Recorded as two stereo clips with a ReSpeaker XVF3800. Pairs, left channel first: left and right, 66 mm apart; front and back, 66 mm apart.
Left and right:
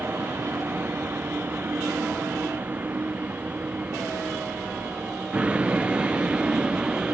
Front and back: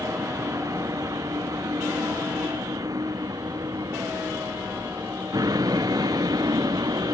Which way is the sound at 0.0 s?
145° right.